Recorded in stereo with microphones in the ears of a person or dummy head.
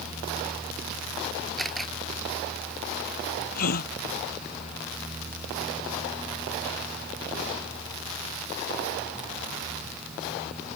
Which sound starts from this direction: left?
A gasp, at 3.5 s.